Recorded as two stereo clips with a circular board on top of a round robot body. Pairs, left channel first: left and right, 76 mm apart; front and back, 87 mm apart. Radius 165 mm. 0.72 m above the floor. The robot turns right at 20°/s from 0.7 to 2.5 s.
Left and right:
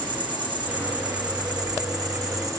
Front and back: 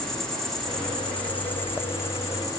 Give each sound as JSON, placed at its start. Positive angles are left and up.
{"t": 0.0, "sound": "an insect", "azimuth_deg": -85, "distance_m": 2.0}